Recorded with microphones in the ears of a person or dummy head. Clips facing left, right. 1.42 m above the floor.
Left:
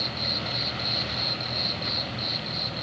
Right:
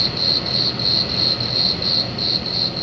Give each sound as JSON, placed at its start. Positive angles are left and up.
{"t": 0.0, "sound": "an insect", "side_deg": -70}